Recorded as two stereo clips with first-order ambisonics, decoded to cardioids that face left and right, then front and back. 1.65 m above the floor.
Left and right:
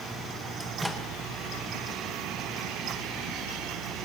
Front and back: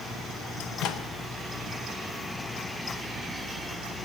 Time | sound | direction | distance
0.6 | a microwave | 5° right | 0.8 m